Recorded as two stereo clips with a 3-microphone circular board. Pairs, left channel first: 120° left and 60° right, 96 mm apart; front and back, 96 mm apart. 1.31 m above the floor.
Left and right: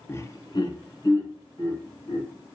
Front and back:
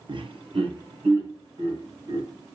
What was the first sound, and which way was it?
Laughter, straight behind.